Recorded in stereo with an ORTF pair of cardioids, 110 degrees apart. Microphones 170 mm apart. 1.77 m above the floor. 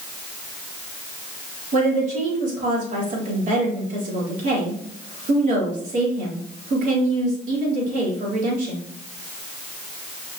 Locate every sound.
1.7 s a woman speaking: 50° right, 4 m